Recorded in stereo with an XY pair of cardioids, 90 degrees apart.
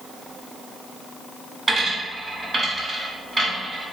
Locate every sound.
1.7 s a dropped coin: 25° right, 1.6 m